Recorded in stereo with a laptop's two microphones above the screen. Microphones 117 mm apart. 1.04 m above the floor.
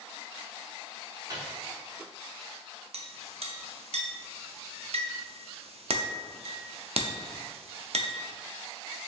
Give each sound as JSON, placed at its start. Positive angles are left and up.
{"t": 1.3, "sound": "a microwave", "side_deg": -35, "distance_m": 1.3}
{"t": 2.9, "sound": "a clink", "side_deg": -65, "distance_m": 0.6}